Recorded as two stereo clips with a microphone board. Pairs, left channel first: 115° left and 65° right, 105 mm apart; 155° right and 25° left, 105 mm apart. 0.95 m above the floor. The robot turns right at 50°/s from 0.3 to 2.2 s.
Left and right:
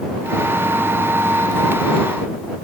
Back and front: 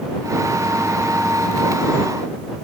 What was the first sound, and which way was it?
Only background noise.